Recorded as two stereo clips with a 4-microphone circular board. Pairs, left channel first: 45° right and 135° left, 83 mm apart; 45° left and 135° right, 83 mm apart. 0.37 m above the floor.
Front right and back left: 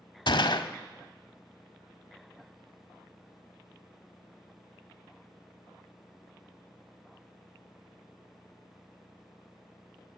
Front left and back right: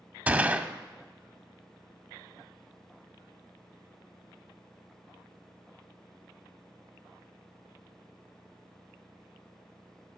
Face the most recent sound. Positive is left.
turn(degrees=-65)